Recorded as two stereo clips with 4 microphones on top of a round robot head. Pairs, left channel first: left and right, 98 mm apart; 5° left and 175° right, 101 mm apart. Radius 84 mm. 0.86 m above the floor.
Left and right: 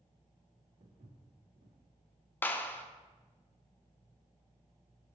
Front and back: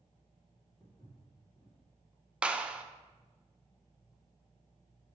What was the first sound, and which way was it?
Footsteps, 90° right.